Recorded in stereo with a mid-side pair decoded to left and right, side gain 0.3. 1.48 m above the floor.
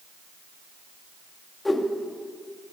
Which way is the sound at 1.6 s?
25° left.